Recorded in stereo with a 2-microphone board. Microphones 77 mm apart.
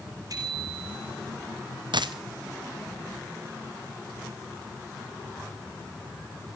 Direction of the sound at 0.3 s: 50° right (ahead or behind).